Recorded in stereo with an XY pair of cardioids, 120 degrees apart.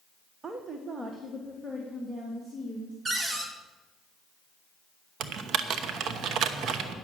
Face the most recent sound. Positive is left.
turn(degrees=-65)